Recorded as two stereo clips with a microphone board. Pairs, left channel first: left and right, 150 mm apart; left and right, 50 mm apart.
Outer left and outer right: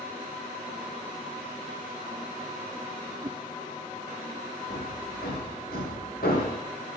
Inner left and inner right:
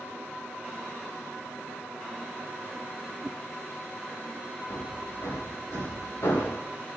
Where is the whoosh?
35° right (ahead or behind), 0.6 m.